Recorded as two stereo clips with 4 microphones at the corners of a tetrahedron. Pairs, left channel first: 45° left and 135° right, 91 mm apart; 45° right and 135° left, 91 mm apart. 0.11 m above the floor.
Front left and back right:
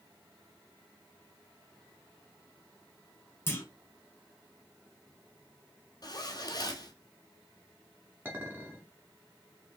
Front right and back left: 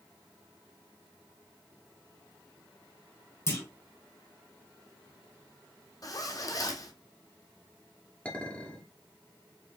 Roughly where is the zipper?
Ahead.